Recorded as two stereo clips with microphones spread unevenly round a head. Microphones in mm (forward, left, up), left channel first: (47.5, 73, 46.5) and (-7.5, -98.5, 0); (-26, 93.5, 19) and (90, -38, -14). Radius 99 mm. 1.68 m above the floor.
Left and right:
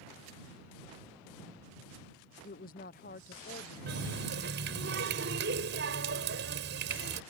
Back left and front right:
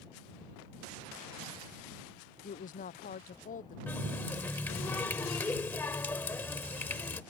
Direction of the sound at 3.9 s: 150° right.